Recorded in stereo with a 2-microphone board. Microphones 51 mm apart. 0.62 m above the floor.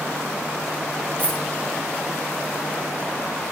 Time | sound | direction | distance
1.2 | a dropped coin | 30° left (ahead or behind) | 3 m